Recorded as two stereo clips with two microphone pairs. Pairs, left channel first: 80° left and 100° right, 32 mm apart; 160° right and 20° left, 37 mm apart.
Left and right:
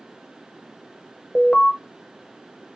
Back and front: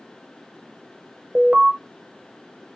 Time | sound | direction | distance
1.4 | an alarm | 55° left | 0.7 m